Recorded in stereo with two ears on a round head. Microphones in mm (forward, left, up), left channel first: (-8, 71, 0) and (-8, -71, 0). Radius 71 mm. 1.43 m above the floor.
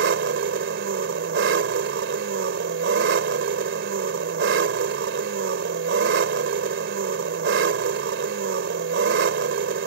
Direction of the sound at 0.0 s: 85° right.